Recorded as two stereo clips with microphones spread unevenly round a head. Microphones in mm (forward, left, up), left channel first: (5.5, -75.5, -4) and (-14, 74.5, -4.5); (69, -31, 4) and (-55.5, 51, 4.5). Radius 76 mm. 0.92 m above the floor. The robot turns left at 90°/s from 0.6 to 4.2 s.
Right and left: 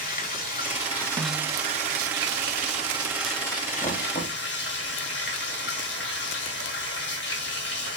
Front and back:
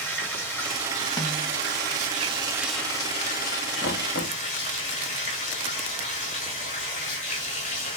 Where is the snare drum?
20° left, 1.3 m; by 1.6 s 10° right, 1.3 m.